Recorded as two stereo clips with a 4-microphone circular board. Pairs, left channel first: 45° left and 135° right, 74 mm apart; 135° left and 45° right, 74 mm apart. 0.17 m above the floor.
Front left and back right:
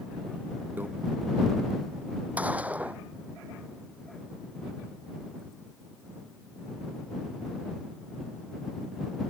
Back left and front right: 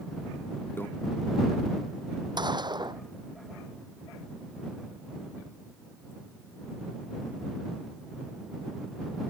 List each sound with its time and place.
0.8 s a microwave: 175° left
2.4 s a gunshot: 65° right